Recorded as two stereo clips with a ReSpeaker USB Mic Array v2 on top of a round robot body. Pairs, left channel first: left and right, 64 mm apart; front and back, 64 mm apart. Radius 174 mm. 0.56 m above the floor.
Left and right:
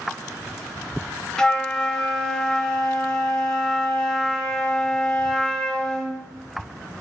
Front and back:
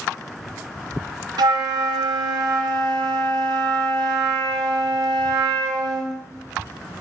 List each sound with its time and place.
1.4 s a flute: 170° left, 0.8 m